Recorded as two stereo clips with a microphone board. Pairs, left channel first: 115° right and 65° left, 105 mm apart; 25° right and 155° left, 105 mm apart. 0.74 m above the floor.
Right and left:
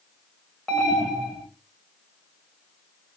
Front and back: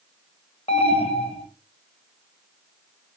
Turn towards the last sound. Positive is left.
turn(degrees=-25)